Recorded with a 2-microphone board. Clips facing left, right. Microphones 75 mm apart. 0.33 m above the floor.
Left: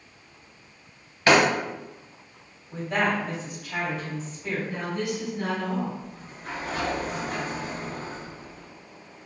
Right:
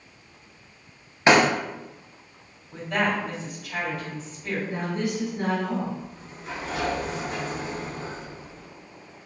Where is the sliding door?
50° left (ahead or behind), 1.1 m.